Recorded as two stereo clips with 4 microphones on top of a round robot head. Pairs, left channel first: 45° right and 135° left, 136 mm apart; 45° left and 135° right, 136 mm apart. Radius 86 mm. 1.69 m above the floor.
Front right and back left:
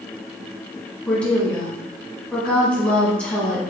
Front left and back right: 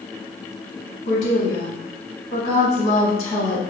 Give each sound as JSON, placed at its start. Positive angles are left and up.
{"t": 1.1, "sound": "a woman speaking", "azimuth_deg": 35, "distance_m": 1.6}